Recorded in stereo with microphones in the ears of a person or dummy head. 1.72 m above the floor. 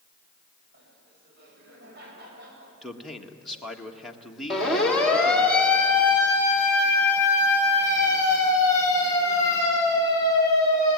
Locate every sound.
0.7 s laughter: 60° right (ahead or behind), 8 m
2.8 s a man speaking: 5° right (ahead or behind), 1.9 m
4.5 s a siren: centre (ahead or behind), 4 m; by 11.0 s 15° left (ahead or behind), 10.5 m